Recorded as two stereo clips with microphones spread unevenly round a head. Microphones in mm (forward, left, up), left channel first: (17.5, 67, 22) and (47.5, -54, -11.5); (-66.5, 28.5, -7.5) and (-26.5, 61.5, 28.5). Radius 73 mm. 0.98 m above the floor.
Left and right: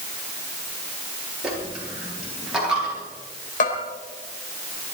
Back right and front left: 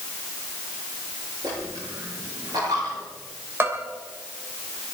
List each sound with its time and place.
1.4 s a dropped coin: 10° left, 9 m
3.6 s a bell: 85° left, 3.5 m